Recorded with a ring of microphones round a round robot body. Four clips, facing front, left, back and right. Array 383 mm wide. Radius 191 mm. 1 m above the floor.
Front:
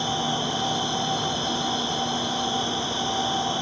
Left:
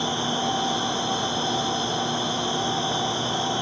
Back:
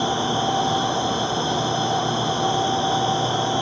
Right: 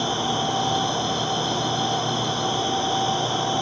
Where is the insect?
65° right, 1.3 m.